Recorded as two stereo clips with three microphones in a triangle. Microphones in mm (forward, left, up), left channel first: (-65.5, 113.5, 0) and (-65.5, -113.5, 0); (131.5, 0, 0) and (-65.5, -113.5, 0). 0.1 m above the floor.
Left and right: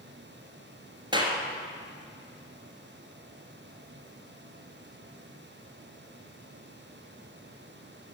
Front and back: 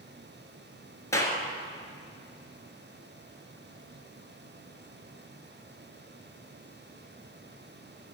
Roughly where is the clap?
Ahead right.